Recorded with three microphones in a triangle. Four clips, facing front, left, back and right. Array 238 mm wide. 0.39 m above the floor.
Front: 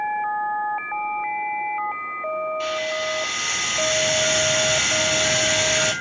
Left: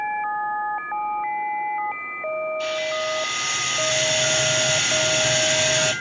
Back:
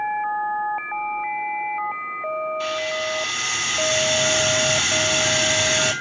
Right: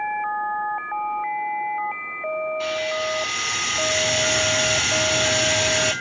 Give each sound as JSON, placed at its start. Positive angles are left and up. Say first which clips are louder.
{"t": 2.6, "sound": "a hiss", "louder": "even, even", "azimuth_deg": -105, "distance_m": 0.9}